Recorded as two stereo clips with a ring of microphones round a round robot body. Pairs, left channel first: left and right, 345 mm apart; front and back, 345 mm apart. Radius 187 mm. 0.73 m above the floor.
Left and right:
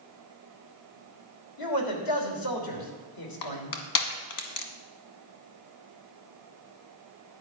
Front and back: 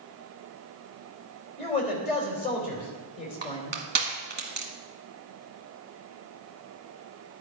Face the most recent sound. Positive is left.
turn(degrees=115)